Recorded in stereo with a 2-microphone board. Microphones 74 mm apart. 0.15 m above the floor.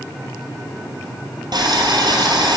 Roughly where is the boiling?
Right.